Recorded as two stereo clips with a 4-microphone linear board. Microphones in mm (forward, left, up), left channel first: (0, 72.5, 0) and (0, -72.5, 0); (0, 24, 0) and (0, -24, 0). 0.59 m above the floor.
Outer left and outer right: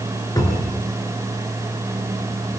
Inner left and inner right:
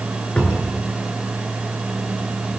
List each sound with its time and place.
0.4 s a cupboard door: 25° left (ahead or behind), 6 m